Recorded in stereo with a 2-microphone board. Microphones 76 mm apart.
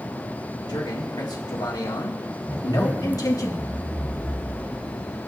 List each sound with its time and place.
0.7 s a man speaking: 75° left (ahead or behind), 3 m; by 3.5 s 50° left (ahead or behind), 2 m
2.5 s a zipper: 20° right (ahead or behind), 0.9 m